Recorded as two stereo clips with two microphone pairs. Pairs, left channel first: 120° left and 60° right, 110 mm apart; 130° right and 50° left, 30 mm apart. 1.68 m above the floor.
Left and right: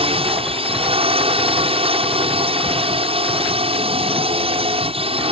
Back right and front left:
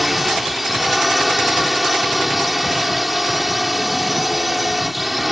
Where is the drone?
35° right.